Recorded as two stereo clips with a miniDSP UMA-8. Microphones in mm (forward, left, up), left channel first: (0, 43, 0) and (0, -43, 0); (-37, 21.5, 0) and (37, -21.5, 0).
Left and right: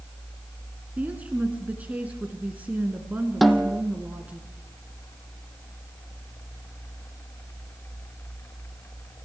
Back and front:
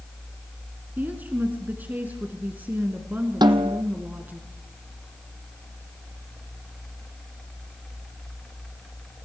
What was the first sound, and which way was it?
A woman speaking, 50° right.